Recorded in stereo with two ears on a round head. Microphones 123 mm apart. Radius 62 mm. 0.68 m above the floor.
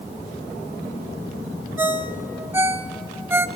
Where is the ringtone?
15° right (ahead or behind), 0.9 m.